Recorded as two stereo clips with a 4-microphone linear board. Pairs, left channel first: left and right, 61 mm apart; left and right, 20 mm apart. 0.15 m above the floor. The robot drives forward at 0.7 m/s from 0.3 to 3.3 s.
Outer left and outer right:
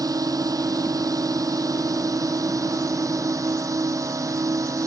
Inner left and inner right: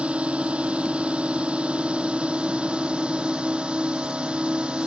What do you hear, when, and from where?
0.0 s a drone: 75° right (ahead or behind); by 4.9 s 60° right (ahead or behind)